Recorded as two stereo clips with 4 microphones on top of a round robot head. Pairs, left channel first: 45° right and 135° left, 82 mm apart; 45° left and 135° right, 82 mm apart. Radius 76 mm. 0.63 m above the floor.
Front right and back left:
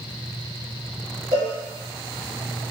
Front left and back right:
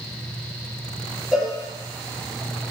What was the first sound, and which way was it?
A cowbell, 130° left.